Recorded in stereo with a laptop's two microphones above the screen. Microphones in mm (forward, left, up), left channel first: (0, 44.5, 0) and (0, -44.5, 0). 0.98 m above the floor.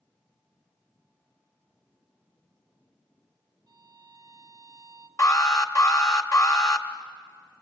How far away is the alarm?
About 1.4 m.